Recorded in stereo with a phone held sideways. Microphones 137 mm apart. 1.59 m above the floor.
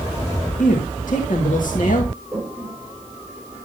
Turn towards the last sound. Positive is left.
turn(degrees=-5)  # may be behind; listen again after turning